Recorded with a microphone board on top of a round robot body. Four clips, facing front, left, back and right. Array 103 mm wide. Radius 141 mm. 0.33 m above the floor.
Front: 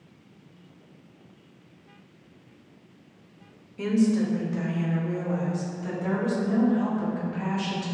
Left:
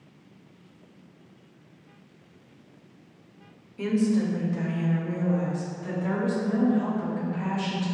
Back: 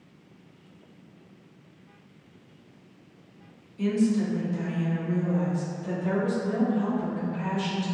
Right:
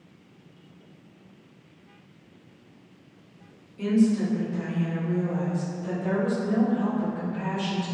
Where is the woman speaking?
35° left, 1.8 m; by 7.8 s 20° left, 6.5 m.